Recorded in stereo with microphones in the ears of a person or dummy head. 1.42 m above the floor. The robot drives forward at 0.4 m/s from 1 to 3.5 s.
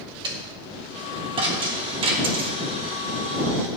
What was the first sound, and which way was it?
A dropped coin, 25° right (ahead or behind).